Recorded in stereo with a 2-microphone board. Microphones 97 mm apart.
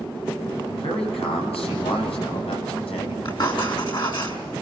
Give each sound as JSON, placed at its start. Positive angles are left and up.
{"t": 0.8, "sound": "a man speaking", "side_deg": 80, "distance_m": 9.0}
{"t": 3.2, "sound": "writing", "side_deg": 50, "distance_m": 6.0}